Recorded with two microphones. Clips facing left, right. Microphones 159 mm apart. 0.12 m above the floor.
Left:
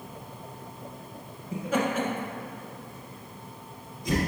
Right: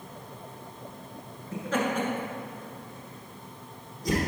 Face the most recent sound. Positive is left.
turn(degrees=-45)  # may be behind; listen again after turning